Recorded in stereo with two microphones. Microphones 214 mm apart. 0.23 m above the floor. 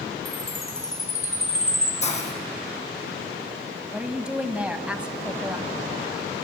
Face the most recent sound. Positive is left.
turn(degrees=-5)  # may be behind; listen again after turning